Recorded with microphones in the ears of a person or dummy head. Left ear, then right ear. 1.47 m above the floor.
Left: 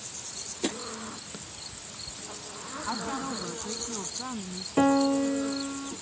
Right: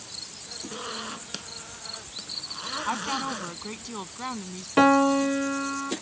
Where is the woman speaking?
80° right.